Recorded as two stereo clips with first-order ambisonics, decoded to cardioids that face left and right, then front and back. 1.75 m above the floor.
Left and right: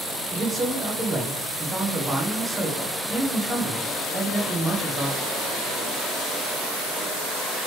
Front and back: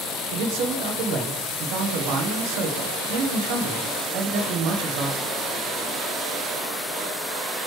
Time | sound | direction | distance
0.3 | a man speaking | 165° right | 1.3 m